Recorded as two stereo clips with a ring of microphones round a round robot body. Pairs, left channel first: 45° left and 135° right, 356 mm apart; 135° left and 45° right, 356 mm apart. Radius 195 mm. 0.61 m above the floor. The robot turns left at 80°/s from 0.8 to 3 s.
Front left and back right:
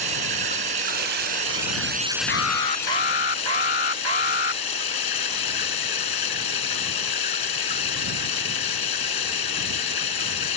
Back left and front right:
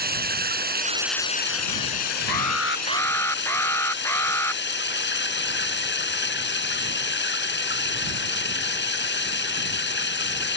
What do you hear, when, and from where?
0.0 s running water: 110° right; by 10.6 s 75° left
2.3 s an alarm: 110° left; by 4.6 s 50° left